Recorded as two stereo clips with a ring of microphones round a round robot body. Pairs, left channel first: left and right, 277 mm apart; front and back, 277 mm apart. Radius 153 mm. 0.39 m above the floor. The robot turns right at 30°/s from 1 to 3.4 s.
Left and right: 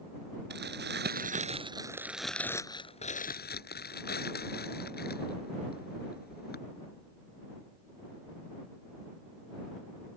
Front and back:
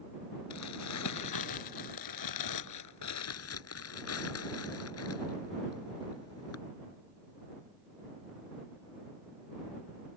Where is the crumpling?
35° right; by 6.6 s 35° left.